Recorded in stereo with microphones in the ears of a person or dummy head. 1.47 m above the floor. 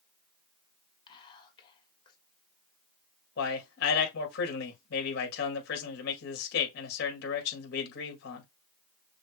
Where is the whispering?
25° left (ahead or behind), 1.6 m.